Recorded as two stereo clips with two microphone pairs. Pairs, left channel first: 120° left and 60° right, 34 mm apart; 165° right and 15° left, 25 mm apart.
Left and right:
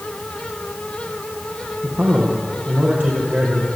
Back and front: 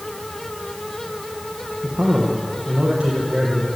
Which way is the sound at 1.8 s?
40° right.